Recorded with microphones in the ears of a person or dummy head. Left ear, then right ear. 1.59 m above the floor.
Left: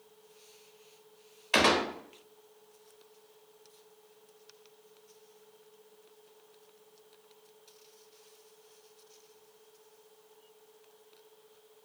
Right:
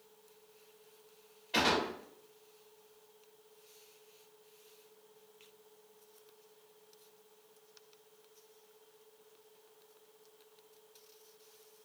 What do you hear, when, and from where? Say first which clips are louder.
1.5 s a gunshot: left 5 dB; 45° left (ahead or behind), 0.9 m